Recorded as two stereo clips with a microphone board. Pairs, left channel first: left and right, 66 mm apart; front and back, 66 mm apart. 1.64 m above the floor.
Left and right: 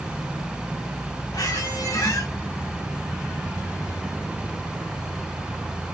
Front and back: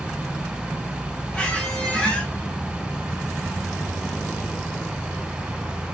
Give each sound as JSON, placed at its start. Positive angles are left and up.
{"t": 1.3, "sound": "a squeak", "azimuth_deg": 75, "distance_m": 3.5}